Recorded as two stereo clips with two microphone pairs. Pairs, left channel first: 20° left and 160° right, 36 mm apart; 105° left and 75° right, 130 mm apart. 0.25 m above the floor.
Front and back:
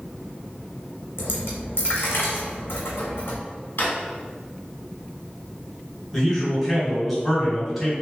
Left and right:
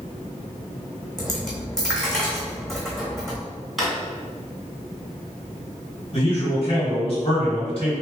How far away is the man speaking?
About 1.9 m.